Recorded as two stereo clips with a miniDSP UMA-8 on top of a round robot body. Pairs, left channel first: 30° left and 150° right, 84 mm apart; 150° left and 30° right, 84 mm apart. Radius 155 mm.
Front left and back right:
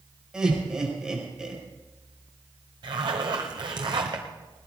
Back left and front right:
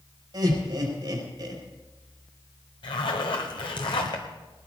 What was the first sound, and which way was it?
Laughter, 70° right.